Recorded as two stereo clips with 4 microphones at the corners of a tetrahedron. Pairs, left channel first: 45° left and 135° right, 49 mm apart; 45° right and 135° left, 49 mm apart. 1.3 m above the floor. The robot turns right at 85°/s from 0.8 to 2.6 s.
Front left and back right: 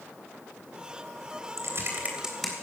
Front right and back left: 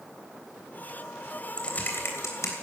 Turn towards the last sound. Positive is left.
turn(degrees=-30)